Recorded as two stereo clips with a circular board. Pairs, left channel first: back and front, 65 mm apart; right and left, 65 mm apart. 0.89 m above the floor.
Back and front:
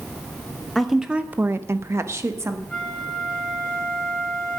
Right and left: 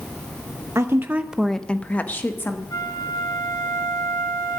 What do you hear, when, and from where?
0.8 s a woman speaking: 100° left, 0.7 m; by 2.6 s 40° right, 1.5 m
2.7 s a flute: 100° right, 2.5 m